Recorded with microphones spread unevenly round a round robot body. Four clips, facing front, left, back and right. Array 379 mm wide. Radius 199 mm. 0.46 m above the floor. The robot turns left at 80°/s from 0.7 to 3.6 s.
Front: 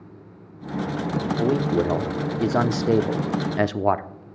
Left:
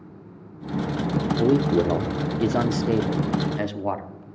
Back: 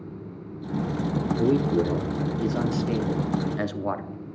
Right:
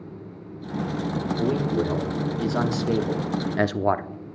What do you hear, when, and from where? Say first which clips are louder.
1.4 s a man speaking: left 5 dB, even; 135° left, 0.8 m; by 4.1 s 45° right, 0.8 m